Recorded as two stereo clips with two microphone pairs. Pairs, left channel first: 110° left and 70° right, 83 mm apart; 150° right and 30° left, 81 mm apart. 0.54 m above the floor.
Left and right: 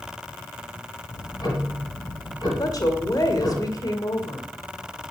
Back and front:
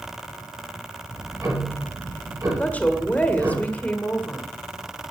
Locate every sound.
1.1 s ticking: 80° left, 6 m
2.6 s a woman speaking: 140° left, 1.9 m